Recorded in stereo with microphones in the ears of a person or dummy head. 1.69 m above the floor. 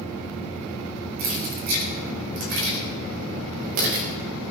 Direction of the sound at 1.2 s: 50° right (ahead or behind).